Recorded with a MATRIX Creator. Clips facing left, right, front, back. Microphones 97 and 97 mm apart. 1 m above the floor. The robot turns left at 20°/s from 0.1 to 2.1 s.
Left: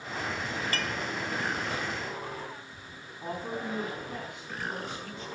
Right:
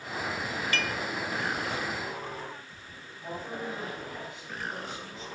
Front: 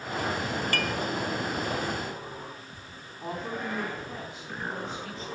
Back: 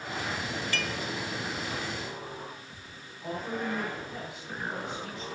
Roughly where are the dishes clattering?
Ahead left.